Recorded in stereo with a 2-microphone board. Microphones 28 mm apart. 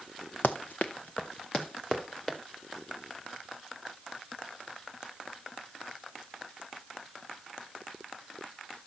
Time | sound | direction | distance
0.4 | running footsteps | 80° left | 1.0 m